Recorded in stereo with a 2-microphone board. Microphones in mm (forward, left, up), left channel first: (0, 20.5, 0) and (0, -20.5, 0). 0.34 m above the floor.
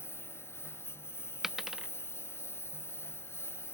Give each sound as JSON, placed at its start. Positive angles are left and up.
{"t": 0.0, "sound": "a lawn mower", "side_deg": 75}
{"t": 1.4, "sound": "a dropped coin", "side_deg": -10}